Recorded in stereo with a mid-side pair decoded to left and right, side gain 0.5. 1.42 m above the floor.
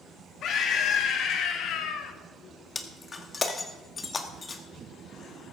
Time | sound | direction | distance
0.4 | a scream | 65° left | 3 m
2.8 | breaking glass | 35° left | 1.8 m